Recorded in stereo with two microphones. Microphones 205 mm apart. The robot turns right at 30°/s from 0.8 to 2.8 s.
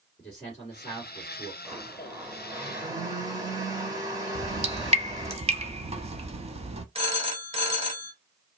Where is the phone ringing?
30° right (ahead or behind), 0.8 m.